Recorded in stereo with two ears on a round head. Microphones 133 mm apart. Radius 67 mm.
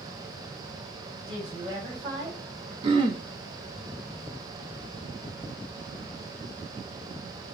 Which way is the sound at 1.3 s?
30° right (ahead or behind).